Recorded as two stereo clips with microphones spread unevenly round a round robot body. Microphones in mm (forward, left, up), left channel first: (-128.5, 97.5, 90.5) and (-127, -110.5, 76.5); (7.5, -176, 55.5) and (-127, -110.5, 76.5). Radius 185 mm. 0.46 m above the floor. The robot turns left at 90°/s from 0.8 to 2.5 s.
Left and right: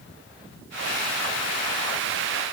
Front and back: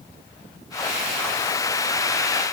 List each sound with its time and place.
Only background noise.